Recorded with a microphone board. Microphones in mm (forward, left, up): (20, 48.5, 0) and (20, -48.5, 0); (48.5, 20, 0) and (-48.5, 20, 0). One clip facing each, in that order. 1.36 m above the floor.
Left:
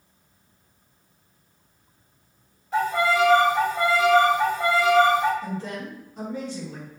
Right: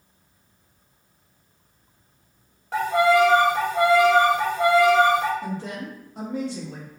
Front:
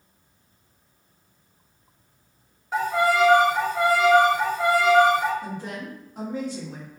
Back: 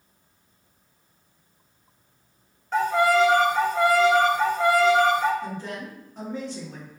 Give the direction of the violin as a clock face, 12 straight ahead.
3 o'clock.